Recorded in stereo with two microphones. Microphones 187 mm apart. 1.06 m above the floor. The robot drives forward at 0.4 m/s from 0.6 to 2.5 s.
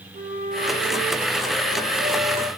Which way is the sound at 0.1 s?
60° right (ahead or behind).